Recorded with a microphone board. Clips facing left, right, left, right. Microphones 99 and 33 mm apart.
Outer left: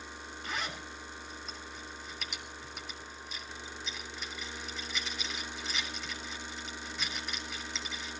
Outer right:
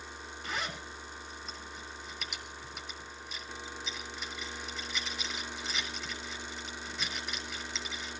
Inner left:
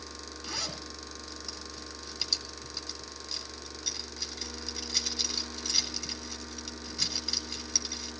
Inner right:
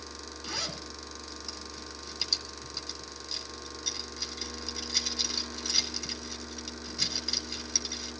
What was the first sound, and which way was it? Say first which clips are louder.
A zipper: outer right 1 dB, inner right 1 dB; centre (ahead or behind).